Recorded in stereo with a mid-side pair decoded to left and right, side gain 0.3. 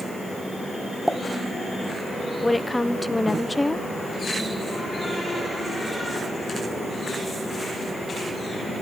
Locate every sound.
1.1 s a pop: straight ahead, 0.5 m
2.4 s a woman speaking: 15° left, 1.0 m